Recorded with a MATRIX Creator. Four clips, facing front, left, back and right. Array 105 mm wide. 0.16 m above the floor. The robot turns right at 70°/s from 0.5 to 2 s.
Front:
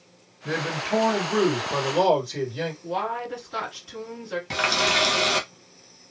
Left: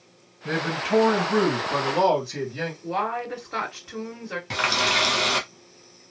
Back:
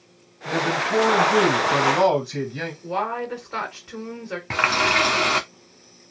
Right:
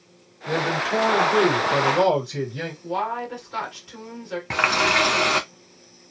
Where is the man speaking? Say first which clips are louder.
Right 2 dB, back 4 dB; 50° left, 2 m; by 2.7 s 155° left, 2 m.